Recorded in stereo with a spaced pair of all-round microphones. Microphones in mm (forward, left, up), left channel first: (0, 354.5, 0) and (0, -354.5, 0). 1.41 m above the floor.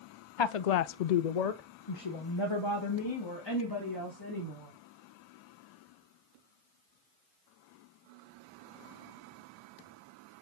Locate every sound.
0.4 s a woman speaking: 40° left (ahead or behind), 0.5 m; by 4.7 s 30° left (ahead or behind), 3 m